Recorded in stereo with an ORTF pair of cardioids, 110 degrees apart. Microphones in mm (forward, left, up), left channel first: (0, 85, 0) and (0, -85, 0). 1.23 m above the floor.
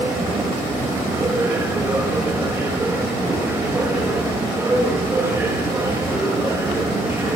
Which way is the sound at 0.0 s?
15° right.